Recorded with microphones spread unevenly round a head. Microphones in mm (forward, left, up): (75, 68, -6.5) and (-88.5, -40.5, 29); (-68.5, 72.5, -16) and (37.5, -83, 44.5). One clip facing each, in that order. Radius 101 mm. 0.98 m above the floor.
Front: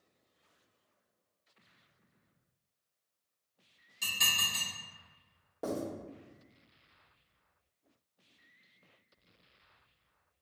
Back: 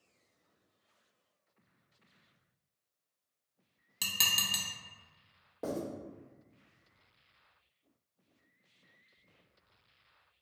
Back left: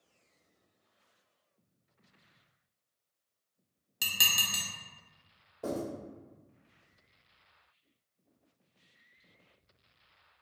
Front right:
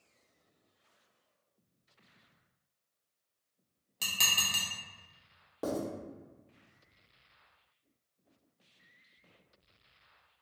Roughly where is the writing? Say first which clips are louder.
Front 1 dB, front right 1 dB; ahead right.